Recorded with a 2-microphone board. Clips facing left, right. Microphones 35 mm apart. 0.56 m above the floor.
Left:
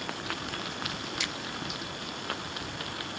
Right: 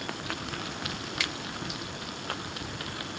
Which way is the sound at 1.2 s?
50° right (ahead or behind).